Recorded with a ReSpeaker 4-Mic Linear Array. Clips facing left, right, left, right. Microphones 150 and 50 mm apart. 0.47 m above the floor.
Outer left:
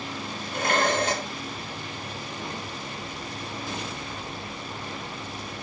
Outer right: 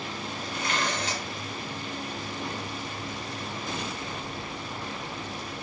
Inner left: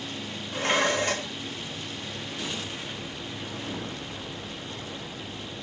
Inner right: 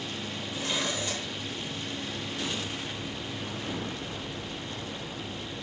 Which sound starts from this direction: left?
Dishes clattering, at 0.5 s.